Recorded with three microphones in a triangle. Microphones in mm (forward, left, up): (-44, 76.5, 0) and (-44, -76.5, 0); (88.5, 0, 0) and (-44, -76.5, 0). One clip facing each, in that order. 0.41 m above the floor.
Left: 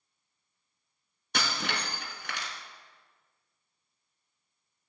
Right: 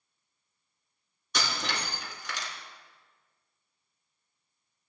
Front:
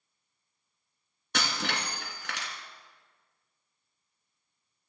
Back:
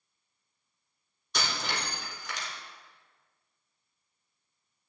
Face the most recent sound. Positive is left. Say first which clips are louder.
# even, front 2 dB
turn(degrees=55)